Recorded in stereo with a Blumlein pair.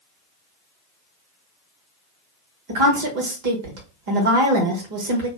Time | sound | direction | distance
2.7 | a woman speaking | 50° right | 1.1 m